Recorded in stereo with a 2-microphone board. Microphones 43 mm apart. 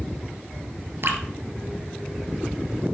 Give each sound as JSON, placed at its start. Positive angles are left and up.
{"t": 1.0, "sound": "dripping", "side_deg": -65, "distance_m": 1.5}